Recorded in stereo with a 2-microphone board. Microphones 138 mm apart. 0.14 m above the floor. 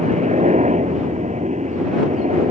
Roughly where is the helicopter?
Right.